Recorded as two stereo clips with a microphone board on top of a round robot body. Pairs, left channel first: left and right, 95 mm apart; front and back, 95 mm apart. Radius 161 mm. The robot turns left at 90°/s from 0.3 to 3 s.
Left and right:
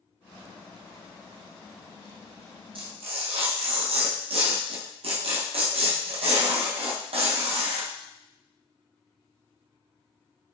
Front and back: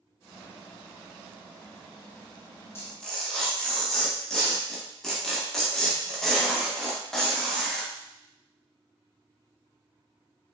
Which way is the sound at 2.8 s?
65° right.